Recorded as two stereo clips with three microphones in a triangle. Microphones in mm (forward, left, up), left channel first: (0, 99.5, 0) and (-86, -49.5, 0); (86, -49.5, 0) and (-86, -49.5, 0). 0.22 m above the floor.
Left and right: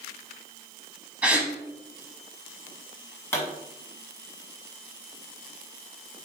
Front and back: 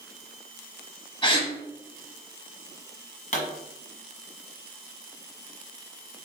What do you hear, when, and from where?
1.2 s a gasp: 40° right, 0.9 m
3.3 s a pop: 10° right, 1.5 m